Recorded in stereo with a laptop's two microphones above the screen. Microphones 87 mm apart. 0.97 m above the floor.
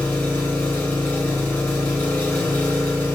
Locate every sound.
0.0 s an engine running: 20° left (ahead or behind), 1.9 m